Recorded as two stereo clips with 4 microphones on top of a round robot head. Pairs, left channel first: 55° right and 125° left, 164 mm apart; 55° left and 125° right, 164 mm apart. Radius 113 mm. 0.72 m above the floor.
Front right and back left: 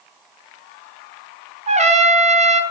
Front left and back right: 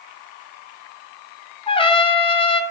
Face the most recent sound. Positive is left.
turn(degrees=100)